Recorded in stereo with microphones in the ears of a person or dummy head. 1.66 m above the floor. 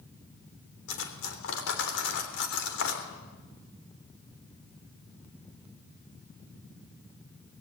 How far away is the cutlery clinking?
About 3 m.